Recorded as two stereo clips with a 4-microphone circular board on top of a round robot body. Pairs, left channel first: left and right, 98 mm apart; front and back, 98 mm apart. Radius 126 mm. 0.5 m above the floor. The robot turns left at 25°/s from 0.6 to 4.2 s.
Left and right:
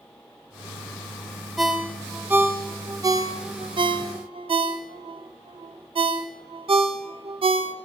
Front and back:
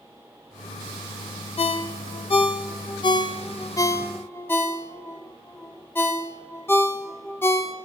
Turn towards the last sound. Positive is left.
turn(degrees=-65)